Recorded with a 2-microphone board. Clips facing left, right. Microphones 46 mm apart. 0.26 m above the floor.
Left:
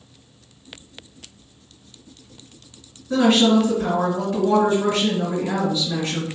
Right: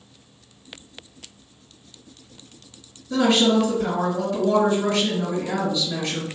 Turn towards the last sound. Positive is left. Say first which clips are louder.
# left 2 dB
turn(degrees=30)  # may be behind; listen again after turning